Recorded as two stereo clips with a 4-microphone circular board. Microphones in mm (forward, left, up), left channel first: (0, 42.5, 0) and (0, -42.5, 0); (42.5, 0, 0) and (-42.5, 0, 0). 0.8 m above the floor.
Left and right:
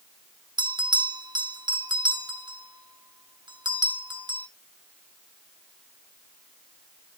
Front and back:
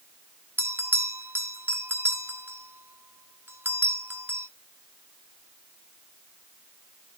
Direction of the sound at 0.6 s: 115° right.